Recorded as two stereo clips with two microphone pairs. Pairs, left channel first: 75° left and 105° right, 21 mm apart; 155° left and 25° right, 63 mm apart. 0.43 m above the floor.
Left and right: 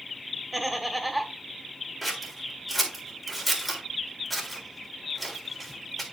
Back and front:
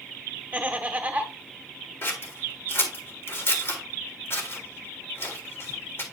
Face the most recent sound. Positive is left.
turn(degrees=165)